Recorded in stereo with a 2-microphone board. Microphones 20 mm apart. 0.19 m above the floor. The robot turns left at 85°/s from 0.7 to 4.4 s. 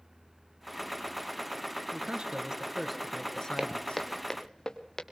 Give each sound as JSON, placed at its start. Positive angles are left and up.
{"t": 1.9, "sound": "a man speaking", "azimuth_deg": -90, "distance_m": 3.5}
{"t": 3.6, "sound": "footsteps", "side_deg": -35, "distance_m": 1.0}